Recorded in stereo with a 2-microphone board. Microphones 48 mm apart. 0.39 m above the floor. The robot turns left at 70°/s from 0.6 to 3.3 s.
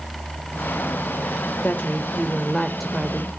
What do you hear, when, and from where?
1.6 s a woman speaking: 80° left, 1.1 m; by 3.3 s 35° right, 1.1 m